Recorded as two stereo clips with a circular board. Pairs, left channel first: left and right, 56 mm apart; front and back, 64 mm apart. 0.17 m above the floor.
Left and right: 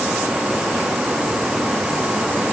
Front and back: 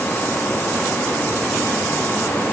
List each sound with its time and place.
Only background noise.